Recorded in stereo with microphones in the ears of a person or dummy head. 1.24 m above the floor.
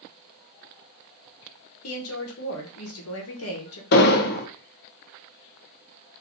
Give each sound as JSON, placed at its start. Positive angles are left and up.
{"t": 1.8, "sound": "a woman speaking", "side_deg": 70, "distance_m": 1.0}
{"t": 3.9, "sound": "an explosion", "side_deg": 50, "distance_m": 0.5}